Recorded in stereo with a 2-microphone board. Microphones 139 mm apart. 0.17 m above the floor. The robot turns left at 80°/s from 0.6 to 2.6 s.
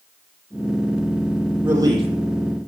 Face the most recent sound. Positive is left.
turn(degrees=-90)